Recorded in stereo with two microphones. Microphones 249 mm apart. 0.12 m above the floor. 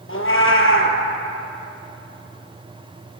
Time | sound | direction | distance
0.1 | a cat meowing | 55° left (ahead or behind) | 1.6 m